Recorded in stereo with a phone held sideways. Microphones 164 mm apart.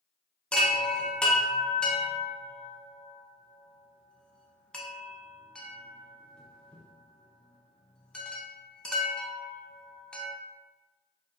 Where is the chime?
5° left (ahead or behind), 0.6 m.